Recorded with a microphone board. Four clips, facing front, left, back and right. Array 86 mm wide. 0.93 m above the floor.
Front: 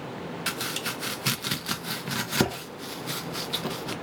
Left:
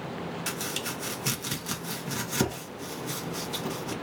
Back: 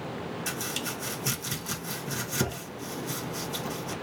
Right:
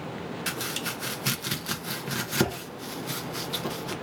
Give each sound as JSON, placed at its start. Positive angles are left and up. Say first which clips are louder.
{"t": 0.5, "sound": "chopping", "louder": "right 1 dB, front 2 dB", "azimuth_deg": -20, "distance_m": 0.7}